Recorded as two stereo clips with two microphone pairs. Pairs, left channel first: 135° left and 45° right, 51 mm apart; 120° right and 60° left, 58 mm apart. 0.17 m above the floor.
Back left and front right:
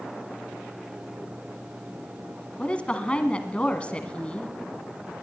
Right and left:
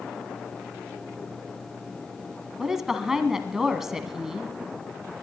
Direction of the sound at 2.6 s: 130° left.